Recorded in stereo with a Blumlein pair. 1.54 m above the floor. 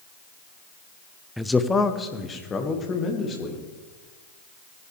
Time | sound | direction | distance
1.4 | a man speaking | straight ahead | 0.6 m